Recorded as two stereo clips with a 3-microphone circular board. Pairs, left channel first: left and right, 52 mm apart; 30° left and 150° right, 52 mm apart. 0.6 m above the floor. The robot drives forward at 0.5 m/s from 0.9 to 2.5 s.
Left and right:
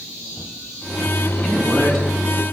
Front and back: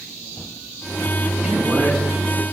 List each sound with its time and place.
1.4 s a man speaking: 165° left, 1.4 m; by 2.1 s 170° left, 1.6 m